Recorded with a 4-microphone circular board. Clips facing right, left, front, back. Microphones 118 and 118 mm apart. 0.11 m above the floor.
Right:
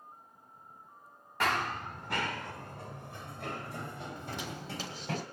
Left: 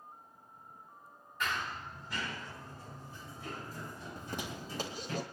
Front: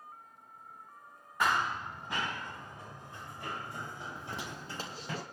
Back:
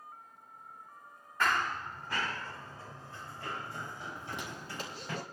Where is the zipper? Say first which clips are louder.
Right 1 dB, even; 50° left, 4 m.